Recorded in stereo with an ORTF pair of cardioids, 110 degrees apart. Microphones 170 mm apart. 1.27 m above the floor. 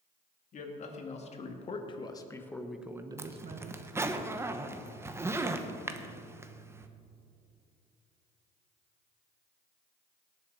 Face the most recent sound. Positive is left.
turn(degrees=-15)